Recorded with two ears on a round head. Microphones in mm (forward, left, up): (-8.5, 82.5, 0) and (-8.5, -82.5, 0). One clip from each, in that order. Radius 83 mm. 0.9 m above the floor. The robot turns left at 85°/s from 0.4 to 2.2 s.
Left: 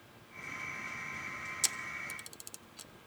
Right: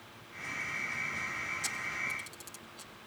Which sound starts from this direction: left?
A camera shutter, at 1.6 s.